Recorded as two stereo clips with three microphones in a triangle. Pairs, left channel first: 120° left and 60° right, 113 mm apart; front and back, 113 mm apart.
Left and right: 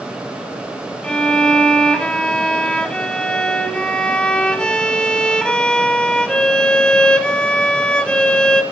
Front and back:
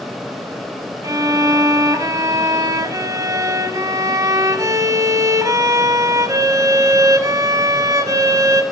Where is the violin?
165° right, 1.0 m.